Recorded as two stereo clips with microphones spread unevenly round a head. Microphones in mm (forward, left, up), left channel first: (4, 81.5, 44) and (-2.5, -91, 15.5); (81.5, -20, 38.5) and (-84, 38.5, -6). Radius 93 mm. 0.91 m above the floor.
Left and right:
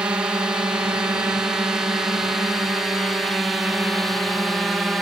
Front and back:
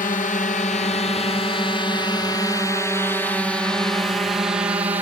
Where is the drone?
30° right; by 5.0 s 165° right.